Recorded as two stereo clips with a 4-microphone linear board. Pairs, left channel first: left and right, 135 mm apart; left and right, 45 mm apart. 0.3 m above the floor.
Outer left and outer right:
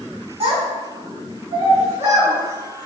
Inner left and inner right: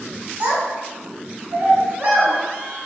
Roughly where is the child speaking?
Right.